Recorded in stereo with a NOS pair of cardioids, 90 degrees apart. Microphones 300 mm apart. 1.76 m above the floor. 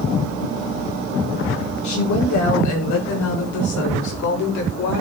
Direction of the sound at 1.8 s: 70° left.